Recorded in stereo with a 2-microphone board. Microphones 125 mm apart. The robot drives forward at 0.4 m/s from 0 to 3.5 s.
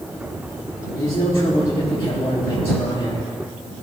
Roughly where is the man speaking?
Left.